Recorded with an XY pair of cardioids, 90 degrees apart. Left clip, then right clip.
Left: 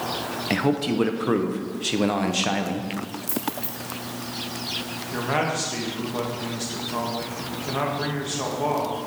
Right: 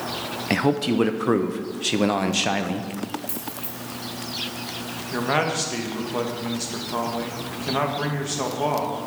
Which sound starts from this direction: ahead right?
A man speaking, at 5.1 s.